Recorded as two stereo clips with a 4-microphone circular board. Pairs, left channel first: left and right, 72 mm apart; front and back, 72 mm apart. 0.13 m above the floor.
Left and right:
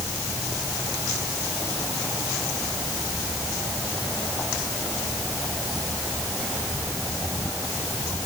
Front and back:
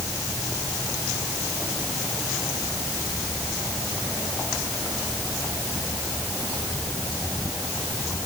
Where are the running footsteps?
No running footsteps in this recording.